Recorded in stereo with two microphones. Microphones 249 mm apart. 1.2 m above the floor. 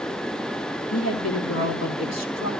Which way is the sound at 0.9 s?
60° left (ahead or behind).